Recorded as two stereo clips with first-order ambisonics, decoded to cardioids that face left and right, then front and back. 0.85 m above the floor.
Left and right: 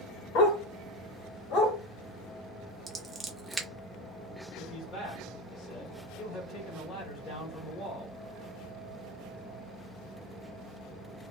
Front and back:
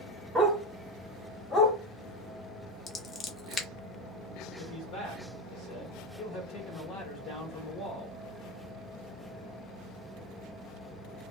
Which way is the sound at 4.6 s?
40° left.